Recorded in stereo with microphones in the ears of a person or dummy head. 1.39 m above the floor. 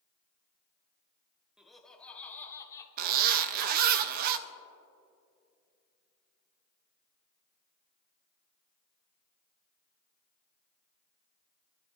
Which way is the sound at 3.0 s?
45° right (ahead or behind).